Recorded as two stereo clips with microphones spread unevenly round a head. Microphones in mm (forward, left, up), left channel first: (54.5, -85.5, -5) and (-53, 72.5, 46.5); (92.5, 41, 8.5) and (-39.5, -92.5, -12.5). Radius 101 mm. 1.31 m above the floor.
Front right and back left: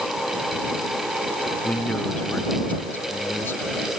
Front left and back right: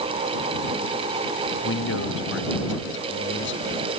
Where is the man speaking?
30° left; by 3.6 s 25° left.